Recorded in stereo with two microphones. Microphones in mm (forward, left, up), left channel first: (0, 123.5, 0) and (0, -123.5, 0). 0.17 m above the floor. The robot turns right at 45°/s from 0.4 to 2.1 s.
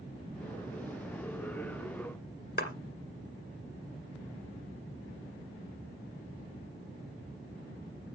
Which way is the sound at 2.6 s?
45° left (ahead or behind).